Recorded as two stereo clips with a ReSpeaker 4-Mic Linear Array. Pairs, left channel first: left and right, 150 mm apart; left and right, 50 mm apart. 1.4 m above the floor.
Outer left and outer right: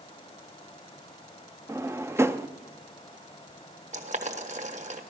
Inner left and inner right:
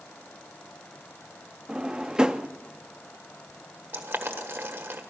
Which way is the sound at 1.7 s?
15° right (ahead or behind).